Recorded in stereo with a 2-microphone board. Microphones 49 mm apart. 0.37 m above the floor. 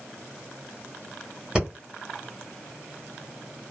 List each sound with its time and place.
1.6 s breathing: 15° right (ahead or behind), 1.1 m